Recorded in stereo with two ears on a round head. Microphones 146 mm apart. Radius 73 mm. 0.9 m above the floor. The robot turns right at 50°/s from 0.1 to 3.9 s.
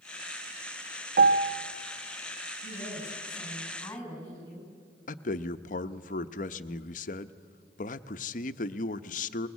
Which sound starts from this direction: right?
A piano, at 1.2 s.